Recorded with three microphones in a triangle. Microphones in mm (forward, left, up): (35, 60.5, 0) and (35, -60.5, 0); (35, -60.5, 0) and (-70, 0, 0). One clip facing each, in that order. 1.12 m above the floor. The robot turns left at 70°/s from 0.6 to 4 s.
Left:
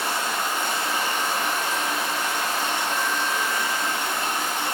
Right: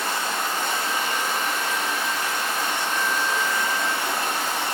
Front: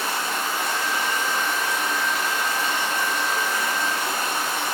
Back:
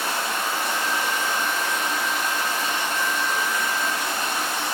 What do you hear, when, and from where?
0.0 s running water: 170° left, 1.7 m; by 4.8 s 70° right, 1.7 m